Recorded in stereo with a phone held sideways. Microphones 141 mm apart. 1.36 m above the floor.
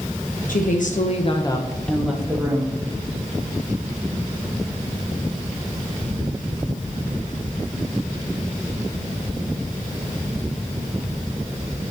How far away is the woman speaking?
About 1.3 m.